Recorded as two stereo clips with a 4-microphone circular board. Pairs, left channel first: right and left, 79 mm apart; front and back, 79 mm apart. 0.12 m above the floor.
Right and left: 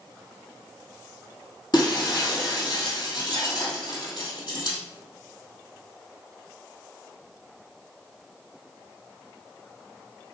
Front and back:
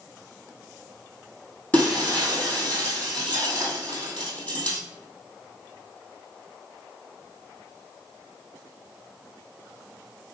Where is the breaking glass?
70° right, 2.5 m.